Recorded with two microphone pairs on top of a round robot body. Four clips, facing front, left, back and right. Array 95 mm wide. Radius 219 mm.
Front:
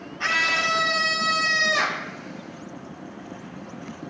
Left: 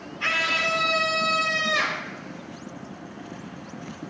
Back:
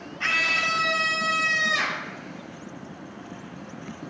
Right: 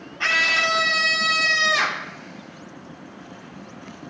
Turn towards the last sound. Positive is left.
turn(degrees=-55)